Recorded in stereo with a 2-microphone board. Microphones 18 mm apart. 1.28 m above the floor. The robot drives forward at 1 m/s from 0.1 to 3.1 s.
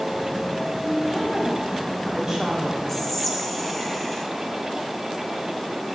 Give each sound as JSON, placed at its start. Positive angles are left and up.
{"t": 0.8, "sound": "a woman speaking", "side_deg": -20, "distance_m": 2.5}
{"t": 2.9, "sound": "whispering", "side_deg": 10, "distance_m": 0.7}